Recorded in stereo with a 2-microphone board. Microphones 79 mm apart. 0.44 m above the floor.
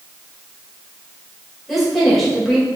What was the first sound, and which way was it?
A woman speaking, centre (ahead or behind).